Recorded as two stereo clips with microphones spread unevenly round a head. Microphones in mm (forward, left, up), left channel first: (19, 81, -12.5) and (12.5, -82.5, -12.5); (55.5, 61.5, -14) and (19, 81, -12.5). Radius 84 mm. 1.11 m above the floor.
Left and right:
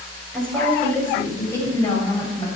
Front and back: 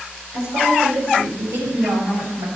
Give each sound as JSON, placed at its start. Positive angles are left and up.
{"t": 0.3, "sound": "a woman speaking", "azimuth_deg": 175, "distance_m": 6.5}